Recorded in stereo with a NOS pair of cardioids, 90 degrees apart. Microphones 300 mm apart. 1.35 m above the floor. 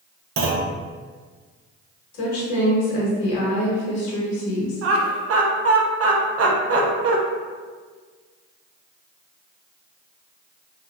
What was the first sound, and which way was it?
A clunk, 50° right.